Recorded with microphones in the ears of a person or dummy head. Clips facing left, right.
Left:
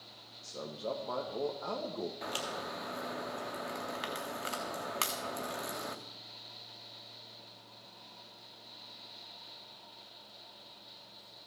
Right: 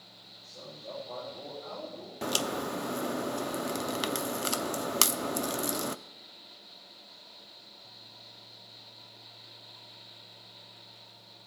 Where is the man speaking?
80° left, 1.6 m.